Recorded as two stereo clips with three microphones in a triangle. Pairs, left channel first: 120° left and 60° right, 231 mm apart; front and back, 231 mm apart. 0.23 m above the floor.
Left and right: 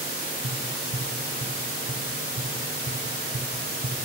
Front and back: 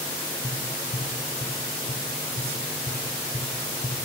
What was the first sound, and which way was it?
Tapping, 60° right.